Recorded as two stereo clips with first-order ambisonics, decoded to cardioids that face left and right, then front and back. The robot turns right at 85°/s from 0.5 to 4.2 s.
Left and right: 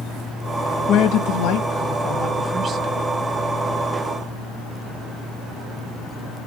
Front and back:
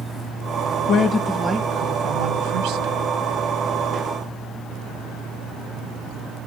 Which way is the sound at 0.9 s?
45° left.